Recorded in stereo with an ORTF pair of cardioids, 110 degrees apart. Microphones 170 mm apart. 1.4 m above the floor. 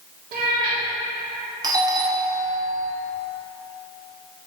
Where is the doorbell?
25° right, 0.9 m.